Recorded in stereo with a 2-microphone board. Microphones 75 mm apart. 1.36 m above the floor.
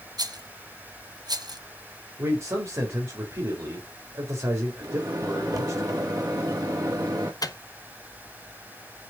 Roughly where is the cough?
I don't hear a cough.